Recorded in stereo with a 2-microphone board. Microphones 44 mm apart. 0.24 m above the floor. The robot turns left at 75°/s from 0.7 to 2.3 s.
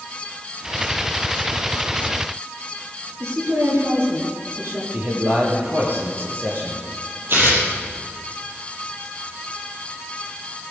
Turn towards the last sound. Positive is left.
turn(degrees=-60)  # may be behind; listen again after turning